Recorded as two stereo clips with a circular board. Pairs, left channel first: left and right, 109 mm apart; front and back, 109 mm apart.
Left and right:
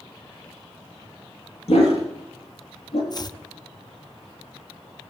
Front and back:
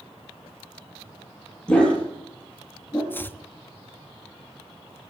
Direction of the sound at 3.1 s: 60° left.